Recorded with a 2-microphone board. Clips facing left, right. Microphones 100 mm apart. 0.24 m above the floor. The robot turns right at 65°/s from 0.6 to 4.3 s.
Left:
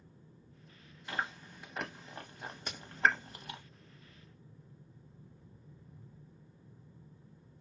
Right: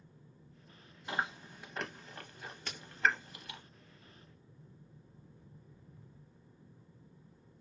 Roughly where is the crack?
Centre.